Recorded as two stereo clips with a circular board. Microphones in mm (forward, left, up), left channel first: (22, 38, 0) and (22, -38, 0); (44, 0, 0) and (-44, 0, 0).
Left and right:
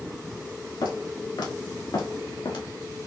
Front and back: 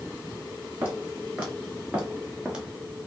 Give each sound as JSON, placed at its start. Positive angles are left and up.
{"t": 0.8, "sound": "footsteps", "azimuth_deg": 105, "distance_m": 3.0}